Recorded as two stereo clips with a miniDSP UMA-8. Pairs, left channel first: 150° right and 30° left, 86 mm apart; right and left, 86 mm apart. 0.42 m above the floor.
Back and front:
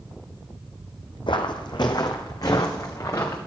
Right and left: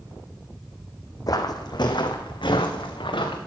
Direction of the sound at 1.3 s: 130° right.